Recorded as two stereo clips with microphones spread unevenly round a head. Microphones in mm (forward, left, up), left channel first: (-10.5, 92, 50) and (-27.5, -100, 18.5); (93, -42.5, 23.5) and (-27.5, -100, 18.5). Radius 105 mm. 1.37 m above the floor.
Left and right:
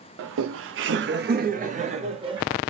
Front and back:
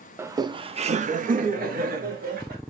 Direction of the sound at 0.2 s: 80° right.